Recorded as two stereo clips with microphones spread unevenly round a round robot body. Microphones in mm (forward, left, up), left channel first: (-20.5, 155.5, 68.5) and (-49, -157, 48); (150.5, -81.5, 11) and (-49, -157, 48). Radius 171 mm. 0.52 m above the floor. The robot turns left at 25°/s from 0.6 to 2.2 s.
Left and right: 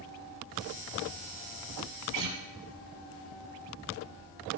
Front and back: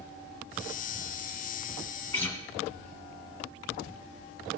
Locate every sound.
2.1 s a guitar: 60° right, 2 m; by 2.4 s 65° right, 2 m